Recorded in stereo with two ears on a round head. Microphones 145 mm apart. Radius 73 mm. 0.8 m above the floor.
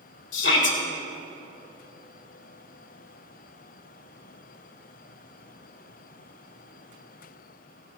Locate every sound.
0.3 s a shout: 80° left, 3 m